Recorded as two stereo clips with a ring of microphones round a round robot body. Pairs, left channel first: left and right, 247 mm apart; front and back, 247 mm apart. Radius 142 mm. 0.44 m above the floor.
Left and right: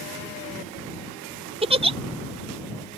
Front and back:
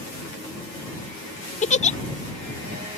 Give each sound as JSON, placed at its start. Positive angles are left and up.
{"t": 1.6, "sound": "a giggle", "azimuth_deg": -40}